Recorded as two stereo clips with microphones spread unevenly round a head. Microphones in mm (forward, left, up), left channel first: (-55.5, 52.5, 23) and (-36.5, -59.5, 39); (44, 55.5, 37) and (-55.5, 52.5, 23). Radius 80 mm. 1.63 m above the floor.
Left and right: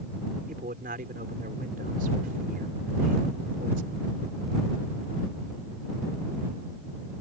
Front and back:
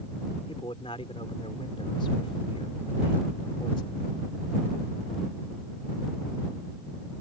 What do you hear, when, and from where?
0.5 s a man speaking: 55° right